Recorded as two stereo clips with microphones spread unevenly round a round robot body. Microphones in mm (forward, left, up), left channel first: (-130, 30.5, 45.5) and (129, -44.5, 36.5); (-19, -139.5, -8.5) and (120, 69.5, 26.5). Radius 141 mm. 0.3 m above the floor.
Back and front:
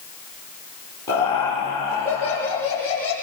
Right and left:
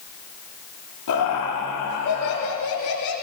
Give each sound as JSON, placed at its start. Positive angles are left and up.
{"t": 1.1, "sound": "laughter", "azimuth_deg": -115, "distance_m": 9.5}